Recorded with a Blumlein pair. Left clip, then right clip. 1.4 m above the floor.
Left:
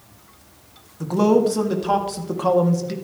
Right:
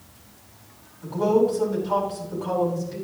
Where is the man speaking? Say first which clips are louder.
Left 3 dB; 45° left, 2.5 m.